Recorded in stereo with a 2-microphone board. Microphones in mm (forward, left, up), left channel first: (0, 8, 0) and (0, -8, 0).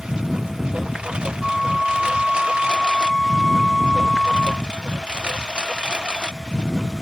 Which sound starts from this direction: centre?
A flute, at 1.4 s.